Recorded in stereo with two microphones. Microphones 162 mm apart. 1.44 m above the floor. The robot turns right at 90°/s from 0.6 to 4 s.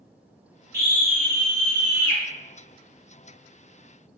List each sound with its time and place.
0.7 s a scream: 100° right, 1.6 m; by 2.2 s 30° left, 1.6 m